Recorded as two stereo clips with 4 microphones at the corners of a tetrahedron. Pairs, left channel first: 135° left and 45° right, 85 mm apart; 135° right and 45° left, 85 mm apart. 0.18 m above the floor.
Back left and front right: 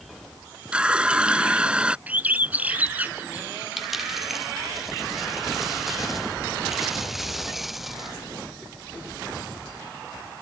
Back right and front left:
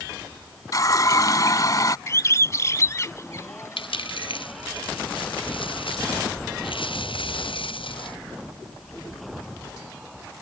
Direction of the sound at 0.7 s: 115° right.